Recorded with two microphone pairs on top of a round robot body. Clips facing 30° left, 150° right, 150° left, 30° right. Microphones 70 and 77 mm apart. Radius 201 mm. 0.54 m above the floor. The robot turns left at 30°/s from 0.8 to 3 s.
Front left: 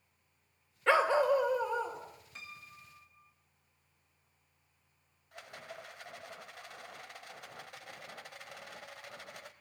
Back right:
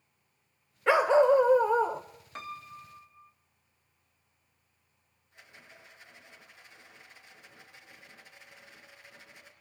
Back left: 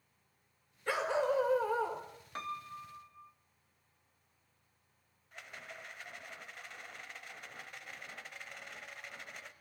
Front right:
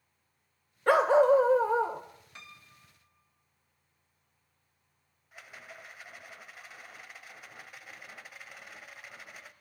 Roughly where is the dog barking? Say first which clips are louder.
Back right 5 dB, front right 11 dB; right.